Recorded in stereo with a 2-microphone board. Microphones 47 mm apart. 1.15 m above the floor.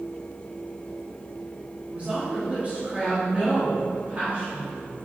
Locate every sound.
1.9 s a woman speaking: 30° right (ahead or behind), 3 m